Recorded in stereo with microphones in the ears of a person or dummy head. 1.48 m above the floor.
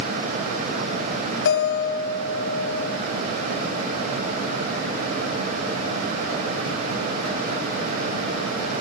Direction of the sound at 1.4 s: 55° left (ahead or behind).